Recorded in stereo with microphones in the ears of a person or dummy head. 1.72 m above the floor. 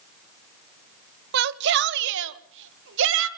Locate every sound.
1.3 s a shout: 60° right (ahead or behind), 1.0 m; by 3.3 s 75° right (ahead or behind), 2.5 m